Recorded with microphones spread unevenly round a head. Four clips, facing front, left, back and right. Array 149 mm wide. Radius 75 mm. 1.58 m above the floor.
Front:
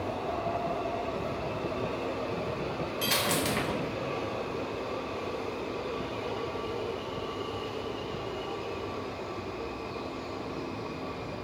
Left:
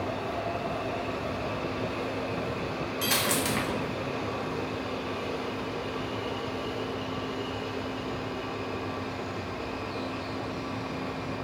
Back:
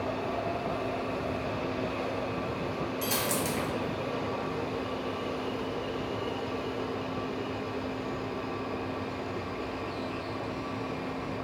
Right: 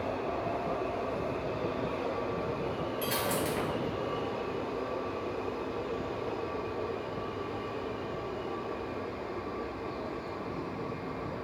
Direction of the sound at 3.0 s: 70° left.